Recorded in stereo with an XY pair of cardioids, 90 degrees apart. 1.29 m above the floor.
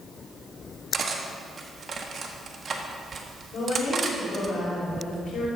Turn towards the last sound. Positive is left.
turn(degrees=70)